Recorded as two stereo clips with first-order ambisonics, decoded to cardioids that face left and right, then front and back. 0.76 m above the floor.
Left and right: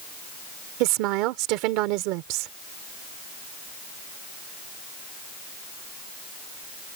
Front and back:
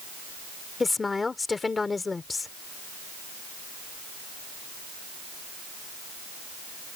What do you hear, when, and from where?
0.8 s a woman speaking: 75° right